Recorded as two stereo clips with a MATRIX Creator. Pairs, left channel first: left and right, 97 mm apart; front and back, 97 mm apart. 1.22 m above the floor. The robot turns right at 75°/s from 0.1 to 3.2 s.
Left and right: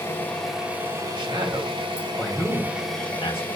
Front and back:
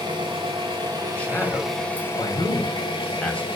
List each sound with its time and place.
0.0 s an engine running: 150° left, 3 m; by 3.6 s 20° left, 3 m
1.1 s a man speaking: 80° right, 2.5 m; by 3.5 s 75° left, 2.5 m